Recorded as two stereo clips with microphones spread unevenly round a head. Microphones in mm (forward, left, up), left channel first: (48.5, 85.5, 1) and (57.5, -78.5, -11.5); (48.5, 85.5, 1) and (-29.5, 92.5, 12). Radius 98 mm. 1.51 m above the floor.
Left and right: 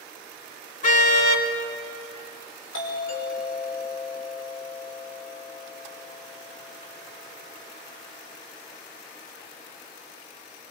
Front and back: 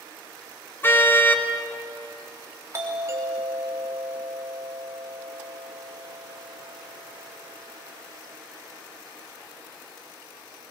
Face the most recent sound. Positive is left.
turn(degrees=120)